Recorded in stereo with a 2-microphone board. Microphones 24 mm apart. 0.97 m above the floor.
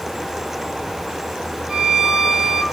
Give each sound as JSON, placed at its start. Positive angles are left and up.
{"t": 1.7, "sound": "a violin", "side_deg": -20, "distance_m": 1.9}